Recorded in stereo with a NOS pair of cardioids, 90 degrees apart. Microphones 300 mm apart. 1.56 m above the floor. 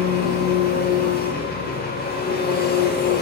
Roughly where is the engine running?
Ahead left.